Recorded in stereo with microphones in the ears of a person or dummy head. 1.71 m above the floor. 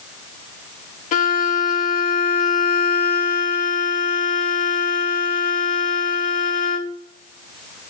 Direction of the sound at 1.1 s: 50° left (ahead or behind).